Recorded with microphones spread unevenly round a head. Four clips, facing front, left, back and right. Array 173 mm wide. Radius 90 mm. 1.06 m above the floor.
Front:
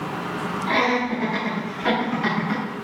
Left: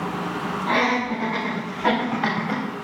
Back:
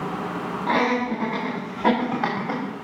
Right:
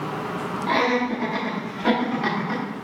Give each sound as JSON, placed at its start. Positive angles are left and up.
{"t": 0.7, "sound": "laughter", "azimuth_deg": 175, "distance_m": 5.0}